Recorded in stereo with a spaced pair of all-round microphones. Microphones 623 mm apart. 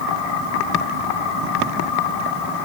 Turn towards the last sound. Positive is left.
No sound to turn to.